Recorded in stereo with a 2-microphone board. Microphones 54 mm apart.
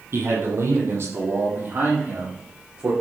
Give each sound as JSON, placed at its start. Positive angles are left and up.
{"t": 0.1, "sound": "a man speaking", "side_deg": -50, "distance_m": 5.0}